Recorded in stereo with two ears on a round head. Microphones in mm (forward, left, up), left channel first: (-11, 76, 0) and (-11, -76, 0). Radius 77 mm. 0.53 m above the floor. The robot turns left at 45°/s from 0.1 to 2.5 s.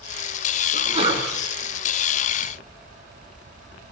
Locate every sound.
0.7 s a sneeze: 50° right (ahead or behind), 6.5 m; by 1.2 s 25° right (ahead or behind), 6.5 m